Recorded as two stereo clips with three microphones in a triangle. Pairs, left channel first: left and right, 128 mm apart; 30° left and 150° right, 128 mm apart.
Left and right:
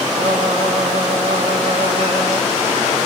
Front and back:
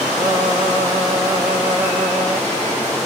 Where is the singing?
80° right, 1.6 m.